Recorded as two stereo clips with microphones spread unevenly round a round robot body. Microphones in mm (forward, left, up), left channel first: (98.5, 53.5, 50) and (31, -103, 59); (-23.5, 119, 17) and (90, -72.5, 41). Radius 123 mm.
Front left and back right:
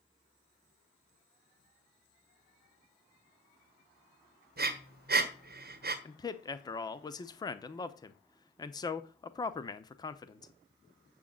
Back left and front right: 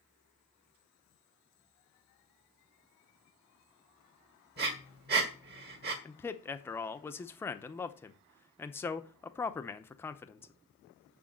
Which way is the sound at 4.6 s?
105° right.